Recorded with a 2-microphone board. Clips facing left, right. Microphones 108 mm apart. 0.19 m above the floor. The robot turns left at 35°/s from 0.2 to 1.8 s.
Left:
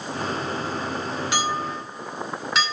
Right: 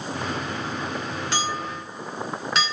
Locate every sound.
1.3 s a clink: 15° left (ahead or behind), 1.6 m; by 2.6 s centre (ahead or behind), 1.6 m